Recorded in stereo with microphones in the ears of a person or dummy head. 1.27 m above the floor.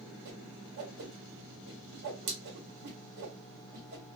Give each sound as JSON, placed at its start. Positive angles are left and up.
{"t": 0.2, "sound": "a whoosh", "side_deg": -50, "distance_m": 1.0}